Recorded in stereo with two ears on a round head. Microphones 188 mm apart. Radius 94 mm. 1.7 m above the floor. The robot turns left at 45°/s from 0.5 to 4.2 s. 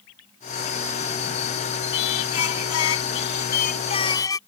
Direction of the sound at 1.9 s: 120° left.